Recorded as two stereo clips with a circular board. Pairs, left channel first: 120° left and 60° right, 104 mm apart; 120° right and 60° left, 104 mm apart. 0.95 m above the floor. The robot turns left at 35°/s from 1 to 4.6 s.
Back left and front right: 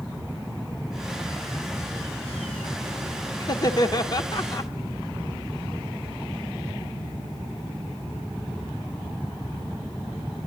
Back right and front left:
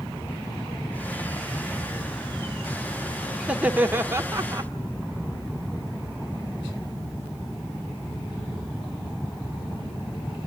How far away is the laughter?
About 0.7 m.